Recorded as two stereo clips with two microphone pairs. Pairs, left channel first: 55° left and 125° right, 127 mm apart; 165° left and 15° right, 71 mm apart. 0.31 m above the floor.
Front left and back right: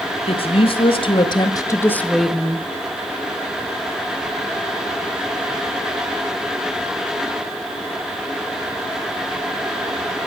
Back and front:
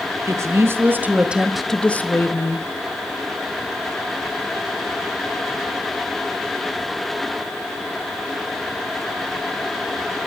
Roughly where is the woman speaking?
Ahead left.